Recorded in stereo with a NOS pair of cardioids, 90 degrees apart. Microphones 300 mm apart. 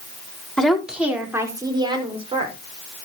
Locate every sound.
0.6 s a woman speaking: straight ahead, 4 m; by 2.5 s 20° right, 6 m